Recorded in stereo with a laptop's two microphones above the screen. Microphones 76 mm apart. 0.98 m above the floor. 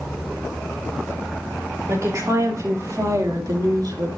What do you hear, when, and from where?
1.9 s a woman speaking: 40° right (ahead or behind), 2.5 m; by 4.1 s 60° right (ahead or behind), 1.7 m